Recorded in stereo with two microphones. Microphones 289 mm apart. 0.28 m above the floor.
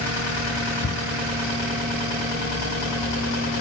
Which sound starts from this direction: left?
A cupboard door, at 0.8 s.